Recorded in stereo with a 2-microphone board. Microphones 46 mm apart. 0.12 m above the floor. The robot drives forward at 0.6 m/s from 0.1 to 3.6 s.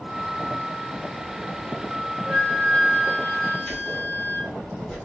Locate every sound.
2.2 s a flute: 20° left (ahead or behind), 2 m; by 4.5 s 15° left (ahead or behind), 3 m
3.6 s keys jangling: 20° left (ahead or behind), 2.5 m